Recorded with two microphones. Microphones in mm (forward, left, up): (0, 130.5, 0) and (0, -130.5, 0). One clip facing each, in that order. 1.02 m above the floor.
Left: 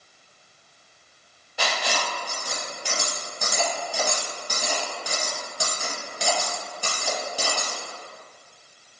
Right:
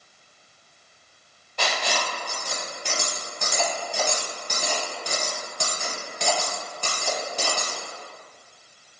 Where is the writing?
10° left (ahead or behind), 0.8 m.